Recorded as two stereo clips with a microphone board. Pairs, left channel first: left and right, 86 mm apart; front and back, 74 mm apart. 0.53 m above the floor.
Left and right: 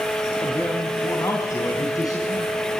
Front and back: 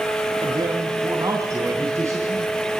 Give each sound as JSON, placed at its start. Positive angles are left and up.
{"t": 0.4, "sound": "a man speaking", "azimuth_deg": 155, "distance_m": 3.5}